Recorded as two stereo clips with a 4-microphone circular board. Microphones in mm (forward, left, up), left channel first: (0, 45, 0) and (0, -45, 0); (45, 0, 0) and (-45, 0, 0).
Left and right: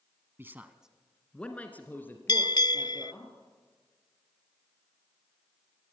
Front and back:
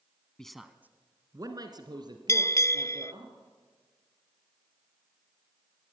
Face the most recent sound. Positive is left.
turn(degrees=55)